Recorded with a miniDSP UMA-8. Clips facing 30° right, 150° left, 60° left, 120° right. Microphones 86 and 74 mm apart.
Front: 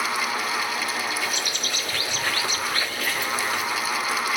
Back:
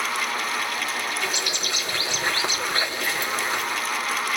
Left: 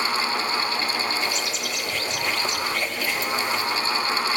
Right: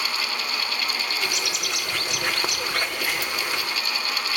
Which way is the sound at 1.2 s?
145° right.